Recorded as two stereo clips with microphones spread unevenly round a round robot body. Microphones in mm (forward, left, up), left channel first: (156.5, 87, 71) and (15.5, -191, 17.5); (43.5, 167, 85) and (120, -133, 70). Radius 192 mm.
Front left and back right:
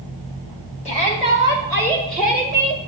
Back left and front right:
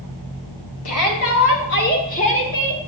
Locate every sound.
0.8 s a shout: 135° left, 3 m; by 2.8 s 170° right, 1.8 m